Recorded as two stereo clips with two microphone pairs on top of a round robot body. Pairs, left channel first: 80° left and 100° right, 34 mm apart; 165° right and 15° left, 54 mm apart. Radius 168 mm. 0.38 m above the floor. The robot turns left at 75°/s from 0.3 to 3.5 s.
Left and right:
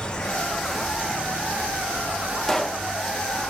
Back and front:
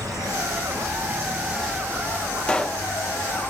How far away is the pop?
About 1.0 m.